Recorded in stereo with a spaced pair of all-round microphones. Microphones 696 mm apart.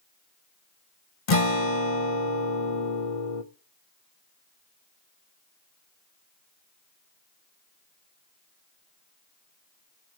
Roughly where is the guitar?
Left.